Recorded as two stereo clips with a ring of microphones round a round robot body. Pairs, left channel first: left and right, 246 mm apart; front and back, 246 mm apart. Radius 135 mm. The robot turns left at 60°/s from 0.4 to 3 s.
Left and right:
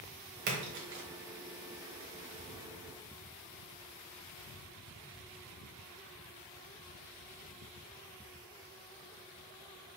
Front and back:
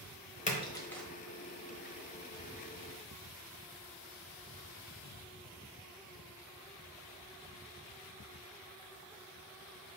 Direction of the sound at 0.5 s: 55° right.